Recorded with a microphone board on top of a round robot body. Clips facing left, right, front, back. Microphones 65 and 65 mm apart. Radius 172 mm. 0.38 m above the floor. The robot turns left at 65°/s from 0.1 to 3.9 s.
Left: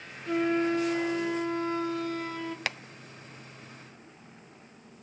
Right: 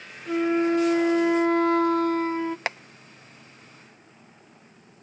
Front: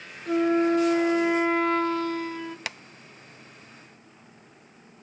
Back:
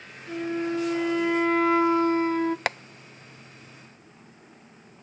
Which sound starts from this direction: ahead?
A flute, at 0.3 s.